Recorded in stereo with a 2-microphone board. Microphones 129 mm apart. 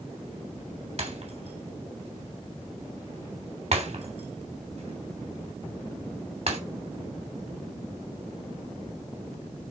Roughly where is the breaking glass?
Right.